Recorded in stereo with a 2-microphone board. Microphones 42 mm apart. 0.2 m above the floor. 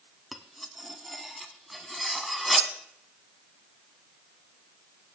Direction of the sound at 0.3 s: Centre (ahead or behind).